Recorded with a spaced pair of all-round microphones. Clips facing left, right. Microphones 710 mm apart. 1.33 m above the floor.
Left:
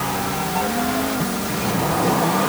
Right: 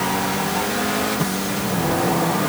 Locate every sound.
Only background noise.